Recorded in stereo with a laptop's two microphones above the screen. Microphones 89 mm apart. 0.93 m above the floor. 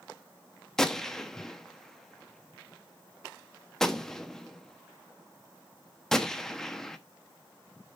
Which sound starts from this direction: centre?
A gunshot, at 0.8 s.